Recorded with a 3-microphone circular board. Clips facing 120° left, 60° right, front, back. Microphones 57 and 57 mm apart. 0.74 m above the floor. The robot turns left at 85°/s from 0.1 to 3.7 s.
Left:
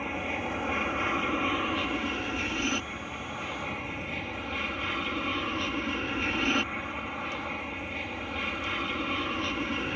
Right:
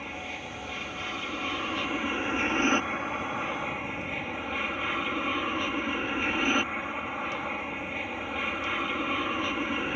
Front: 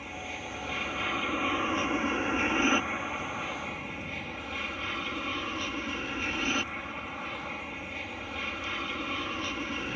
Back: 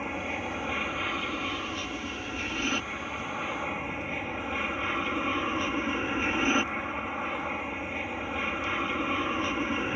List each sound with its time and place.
0.0 s an aircraft: 175° left; by 10.0 s 130° right